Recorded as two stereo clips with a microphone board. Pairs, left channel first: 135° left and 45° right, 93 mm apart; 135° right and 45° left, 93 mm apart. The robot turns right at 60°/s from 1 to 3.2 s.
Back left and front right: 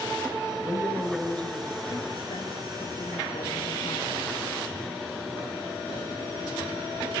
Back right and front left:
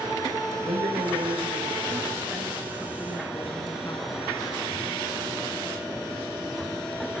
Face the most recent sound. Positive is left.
turn(degrees=165)